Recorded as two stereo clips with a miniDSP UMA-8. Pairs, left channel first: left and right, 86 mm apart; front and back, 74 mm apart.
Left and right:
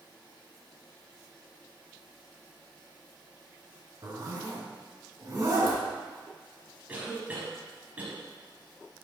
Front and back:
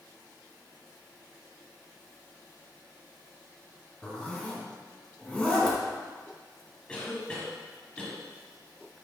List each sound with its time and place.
4.0 s a zipper: 70° right, 1.4 m
6.9 s a cough: 50° right, 1.0 m